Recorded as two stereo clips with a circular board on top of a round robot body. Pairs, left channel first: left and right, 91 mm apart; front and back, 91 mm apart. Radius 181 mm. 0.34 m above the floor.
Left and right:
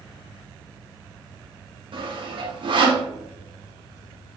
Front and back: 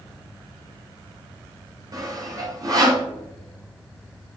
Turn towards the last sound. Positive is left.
turn(degrees=-125)